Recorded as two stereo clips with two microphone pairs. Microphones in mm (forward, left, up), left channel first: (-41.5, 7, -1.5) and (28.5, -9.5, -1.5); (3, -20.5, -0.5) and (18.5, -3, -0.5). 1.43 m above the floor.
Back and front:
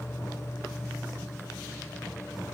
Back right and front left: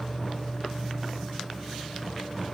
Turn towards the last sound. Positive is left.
turn(degrees=115)